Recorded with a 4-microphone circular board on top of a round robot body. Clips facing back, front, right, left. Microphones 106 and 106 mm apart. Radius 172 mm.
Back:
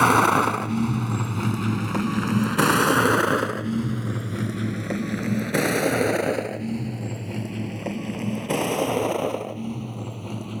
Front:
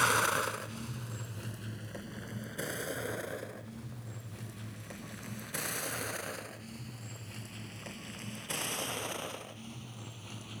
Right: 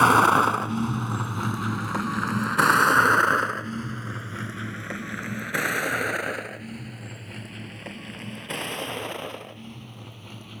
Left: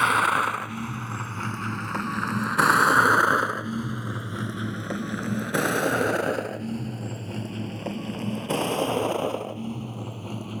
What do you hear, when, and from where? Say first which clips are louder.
0.0 s a vehicle: back 13 dB, right 5 dB; 145° right; by 10.6 s 140° left